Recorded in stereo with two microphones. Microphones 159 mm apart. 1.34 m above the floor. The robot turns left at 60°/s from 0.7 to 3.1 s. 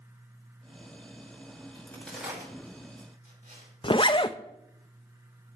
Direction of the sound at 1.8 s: 25° left (ahead or behind).